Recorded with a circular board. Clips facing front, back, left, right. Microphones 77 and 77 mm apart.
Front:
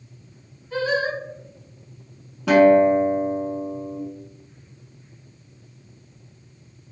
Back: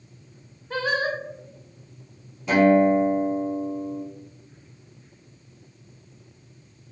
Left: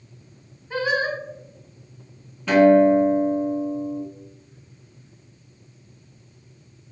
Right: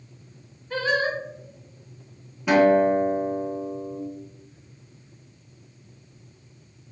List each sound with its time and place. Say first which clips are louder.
0.7 s singing: front 2 dB, left 1 dB; 165° left, 0.6 m
2.5 s a guitar: front 3 dB, left 4 dB; 10° right, 0.6 m